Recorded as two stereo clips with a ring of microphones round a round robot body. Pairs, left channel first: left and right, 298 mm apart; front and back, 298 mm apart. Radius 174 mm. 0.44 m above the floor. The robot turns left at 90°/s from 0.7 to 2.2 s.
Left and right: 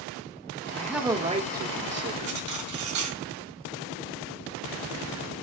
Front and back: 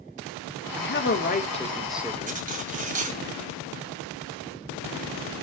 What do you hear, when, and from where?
0.8 s a man speaking: 15° left, 1.4 m; by 2.5 s 115° right, 1.4 m
2.3 s cutlery clinking: 115° right, 1.8 m